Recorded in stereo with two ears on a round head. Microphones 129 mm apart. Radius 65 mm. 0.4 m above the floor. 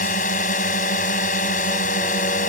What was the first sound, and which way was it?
A drone, 60° left (ahead or behind).